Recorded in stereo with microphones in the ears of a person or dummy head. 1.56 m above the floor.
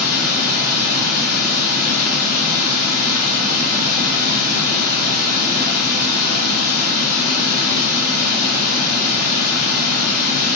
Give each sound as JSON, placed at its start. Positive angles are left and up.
{"t": 0.0, "sound": "running water", "side_deg": 70, "distance_m": 0.9}